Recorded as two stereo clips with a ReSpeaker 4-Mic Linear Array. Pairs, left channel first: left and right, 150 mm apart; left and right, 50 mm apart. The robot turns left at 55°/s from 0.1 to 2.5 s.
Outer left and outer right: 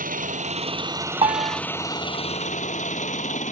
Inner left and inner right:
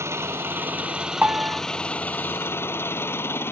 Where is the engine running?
105° right; by 3.5 s 120° left.